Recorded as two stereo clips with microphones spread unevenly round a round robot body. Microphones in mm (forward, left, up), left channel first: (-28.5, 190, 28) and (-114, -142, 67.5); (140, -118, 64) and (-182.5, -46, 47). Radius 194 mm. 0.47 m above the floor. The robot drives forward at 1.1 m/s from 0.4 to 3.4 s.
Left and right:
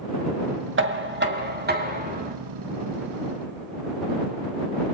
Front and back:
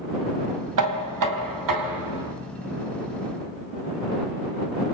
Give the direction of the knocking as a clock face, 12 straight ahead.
5 o'clock.